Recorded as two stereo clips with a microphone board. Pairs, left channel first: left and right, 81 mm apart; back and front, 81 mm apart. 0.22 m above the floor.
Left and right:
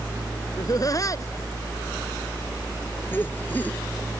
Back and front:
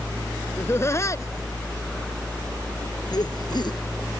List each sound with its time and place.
0.6 s laughter: 125° left; by 3.8 s 160° left